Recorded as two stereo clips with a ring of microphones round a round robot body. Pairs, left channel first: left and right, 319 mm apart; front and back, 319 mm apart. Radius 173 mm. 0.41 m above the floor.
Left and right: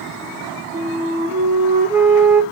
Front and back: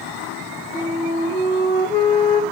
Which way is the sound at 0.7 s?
25° right.